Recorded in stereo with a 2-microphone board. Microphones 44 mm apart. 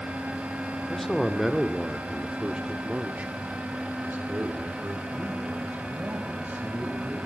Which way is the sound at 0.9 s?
5° left (ahead or behind).